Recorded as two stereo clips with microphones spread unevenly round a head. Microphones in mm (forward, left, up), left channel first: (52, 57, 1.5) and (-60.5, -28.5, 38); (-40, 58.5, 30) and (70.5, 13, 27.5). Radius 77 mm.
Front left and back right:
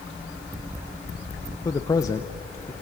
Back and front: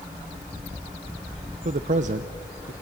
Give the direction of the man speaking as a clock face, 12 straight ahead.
1 o'clock.